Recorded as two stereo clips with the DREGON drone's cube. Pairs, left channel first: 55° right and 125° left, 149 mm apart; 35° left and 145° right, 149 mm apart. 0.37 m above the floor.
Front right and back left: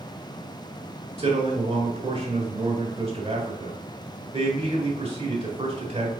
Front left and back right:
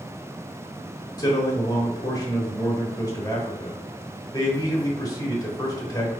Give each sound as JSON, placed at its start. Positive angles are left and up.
{"t": 1.2, "sound": "a man speaking", "azimuth_deg": 90, "distance_m": 1.3}